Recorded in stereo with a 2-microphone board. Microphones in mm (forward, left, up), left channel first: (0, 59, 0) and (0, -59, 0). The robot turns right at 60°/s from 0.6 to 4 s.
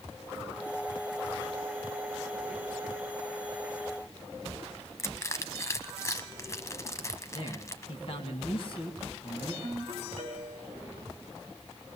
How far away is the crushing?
About 1.0 m.